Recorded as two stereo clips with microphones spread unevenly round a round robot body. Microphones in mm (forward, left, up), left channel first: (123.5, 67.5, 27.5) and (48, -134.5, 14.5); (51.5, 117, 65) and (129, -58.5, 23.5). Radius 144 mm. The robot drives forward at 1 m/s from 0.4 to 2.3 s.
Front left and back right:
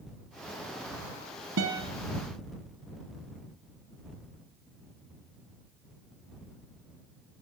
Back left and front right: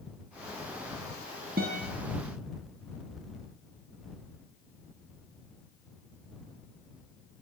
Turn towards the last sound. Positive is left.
turn(degrees=-145)